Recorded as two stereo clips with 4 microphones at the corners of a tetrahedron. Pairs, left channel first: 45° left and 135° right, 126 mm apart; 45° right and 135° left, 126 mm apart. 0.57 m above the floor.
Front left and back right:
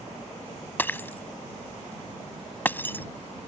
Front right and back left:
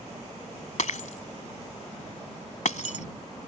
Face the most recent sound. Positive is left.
turn(degrees=-30)